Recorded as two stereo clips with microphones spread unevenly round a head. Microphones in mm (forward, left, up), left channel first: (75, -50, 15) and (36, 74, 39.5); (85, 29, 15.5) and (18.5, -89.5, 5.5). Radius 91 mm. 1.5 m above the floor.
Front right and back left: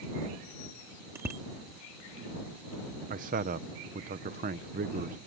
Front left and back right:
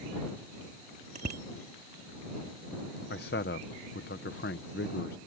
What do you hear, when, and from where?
1.1 s a bicycle bell: 175° right
3.1 s a man speaking: 95° left